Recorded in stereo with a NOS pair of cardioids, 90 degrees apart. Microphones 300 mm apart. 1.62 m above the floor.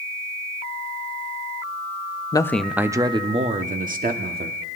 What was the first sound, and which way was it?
A man speaking, 15° left.